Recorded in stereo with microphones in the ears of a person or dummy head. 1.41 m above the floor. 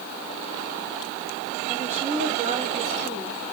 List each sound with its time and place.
1.7 s a woman speaking: 40° right (ahead or behind), 5.5 m